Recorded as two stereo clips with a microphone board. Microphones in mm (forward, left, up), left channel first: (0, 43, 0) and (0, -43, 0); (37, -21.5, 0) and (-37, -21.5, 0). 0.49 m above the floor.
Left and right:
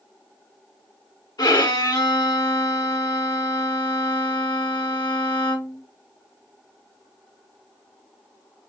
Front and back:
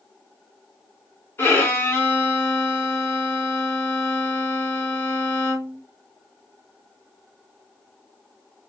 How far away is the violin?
About 1.5 m.